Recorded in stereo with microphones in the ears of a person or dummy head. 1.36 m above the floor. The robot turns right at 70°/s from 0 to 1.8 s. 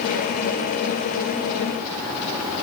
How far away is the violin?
No violin in this recording.